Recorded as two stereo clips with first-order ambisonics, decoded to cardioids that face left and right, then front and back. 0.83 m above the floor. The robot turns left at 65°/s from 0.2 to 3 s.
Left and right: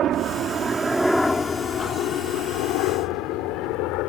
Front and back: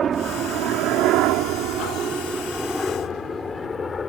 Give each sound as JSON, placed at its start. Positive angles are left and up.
{"t": 0.0, "sound": "a helicopter", "azimuth_deg": -125}